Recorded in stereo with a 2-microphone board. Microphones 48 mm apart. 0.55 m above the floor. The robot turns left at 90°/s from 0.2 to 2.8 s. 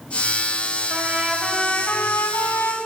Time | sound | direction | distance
0.9 | a trumpet | 130° right | 4 m